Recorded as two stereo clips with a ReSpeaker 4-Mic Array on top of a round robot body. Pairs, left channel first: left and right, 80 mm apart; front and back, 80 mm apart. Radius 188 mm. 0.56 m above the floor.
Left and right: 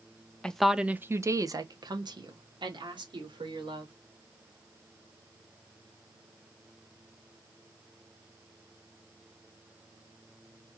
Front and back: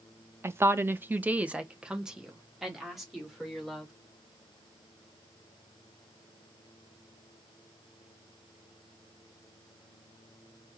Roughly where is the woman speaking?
Behind.